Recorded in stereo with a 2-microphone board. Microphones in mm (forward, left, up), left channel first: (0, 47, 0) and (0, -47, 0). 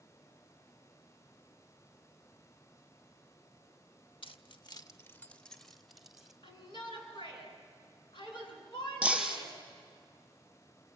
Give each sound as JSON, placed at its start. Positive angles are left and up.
{"t": 4.2, "sound": "keys jangling", "side_deg": 70, "distance_m": 0.9}
{"t": 6.4, "sound": "a shout", "side_deg": 60, "distance_m": 7.0}
{"t": 9.0, "sound": "breaking glass", "side_deg": -10, "distance_m": 3.5}